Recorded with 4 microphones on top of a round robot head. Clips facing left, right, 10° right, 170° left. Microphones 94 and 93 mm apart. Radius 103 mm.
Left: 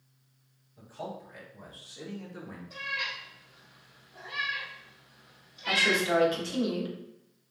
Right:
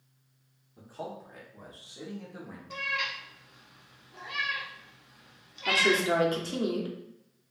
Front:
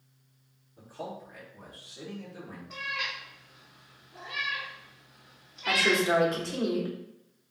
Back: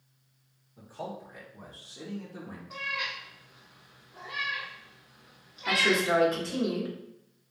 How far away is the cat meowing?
About 0.6 m.